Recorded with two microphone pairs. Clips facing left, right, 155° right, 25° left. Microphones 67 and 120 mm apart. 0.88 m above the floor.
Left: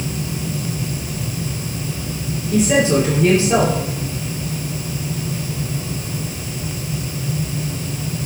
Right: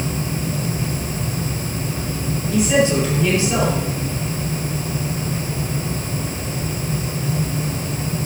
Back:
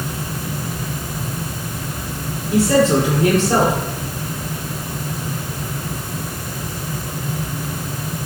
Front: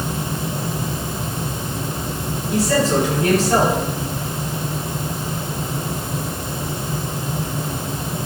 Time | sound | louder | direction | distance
2.5 | a man speaking | left 2 dB, back 4 dB | 150° left | 2.5 m